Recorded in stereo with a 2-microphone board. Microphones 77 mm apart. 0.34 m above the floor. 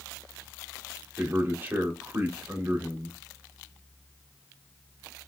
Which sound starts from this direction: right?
A man speaking, at 1.2 s.